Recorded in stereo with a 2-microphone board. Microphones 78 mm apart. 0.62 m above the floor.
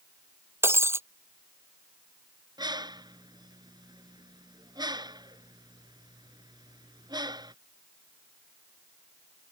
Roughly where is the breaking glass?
Right.